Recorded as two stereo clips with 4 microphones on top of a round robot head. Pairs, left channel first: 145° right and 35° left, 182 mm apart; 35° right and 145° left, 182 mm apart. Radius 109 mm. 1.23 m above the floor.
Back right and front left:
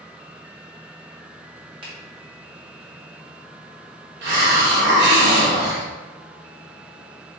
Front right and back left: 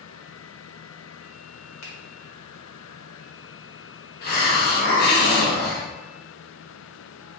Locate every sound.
1.8 s a finger snap: 30° right, 1.6 m
4.2 s a hiss: 5° left, 0.9 m